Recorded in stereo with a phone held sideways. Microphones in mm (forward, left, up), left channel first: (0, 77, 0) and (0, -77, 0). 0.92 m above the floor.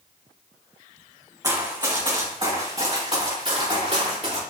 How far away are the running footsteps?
About 3 m.